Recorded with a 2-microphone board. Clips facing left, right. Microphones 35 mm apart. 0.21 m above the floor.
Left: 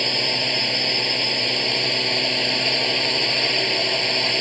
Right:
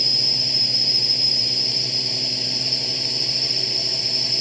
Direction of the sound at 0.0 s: 45° left (ahead or behind).